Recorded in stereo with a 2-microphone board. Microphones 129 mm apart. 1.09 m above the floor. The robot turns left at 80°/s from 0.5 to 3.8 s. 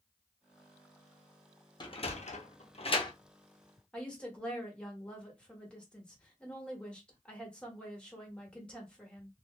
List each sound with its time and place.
1.8 s a sliding door: 35° left (ahead or behind), 0.7 m; by 3.1 s 30° left (ahead or behind), 0.7 m
3.9 s a woman speaking: 10° left (ahead or behind), 1.3 m